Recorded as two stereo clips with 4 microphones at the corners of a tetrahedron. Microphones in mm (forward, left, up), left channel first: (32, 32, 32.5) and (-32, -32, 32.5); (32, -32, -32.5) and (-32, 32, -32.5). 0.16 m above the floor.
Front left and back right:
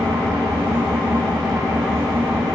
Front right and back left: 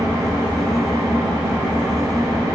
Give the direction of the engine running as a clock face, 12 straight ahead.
6 o'clock.